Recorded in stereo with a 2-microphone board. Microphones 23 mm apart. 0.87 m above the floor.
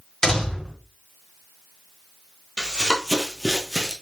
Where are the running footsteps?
35° left (ahead or behind), 1.2 m; by 3.9 s 5° right (ahead or behind), 1.2 m.